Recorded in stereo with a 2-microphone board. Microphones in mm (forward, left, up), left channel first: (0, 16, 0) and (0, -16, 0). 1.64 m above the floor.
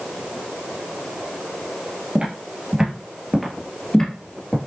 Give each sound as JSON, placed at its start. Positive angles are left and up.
{"t": 2.1, "sound": "footsteps", "side_deg": -35, "distance_m": 1.9}